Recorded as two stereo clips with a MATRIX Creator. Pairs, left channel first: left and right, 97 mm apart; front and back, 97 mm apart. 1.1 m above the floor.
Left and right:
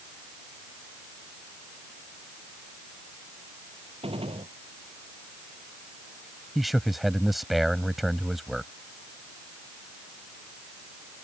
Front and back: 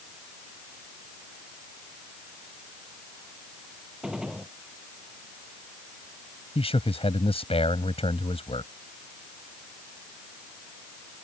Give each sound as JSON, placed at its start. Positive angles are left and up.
{"t": 4.0, "sound": "a gunshot", "azimuth_deg": -95}
{"t": 6.5, "sound": "a man speaking", "azimuth_deg": 0}